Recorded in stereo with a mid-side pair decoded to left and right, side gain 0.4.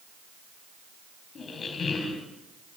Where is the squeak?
55° left, 4 m.